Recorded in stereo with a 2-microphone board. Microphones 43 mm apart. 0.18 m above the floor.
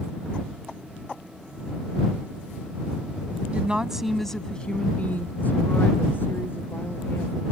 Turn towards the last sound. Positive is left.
turn(degrees=60)  # may be behind; listen again after turning